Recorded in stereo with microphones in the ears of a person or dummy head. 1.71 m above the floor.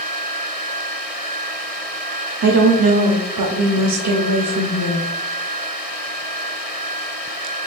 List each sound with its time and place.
2.4 s a woman speaking: 65° right (ahead or behind), 0.5 m